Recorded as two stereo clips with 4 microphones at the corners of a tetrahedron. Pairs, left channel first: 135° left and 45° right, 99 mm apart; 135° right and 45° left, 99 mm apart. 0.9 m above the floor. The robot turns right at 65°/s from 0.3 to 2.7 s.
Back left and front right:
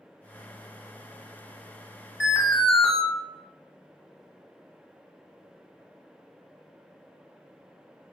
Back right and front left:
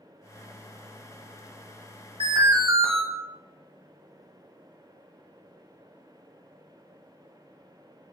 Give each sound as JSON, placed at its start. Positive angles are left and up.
{"t": 2.2, "sound": "an alarm", "azimuth_deg": 35, "distance_m": 1.4}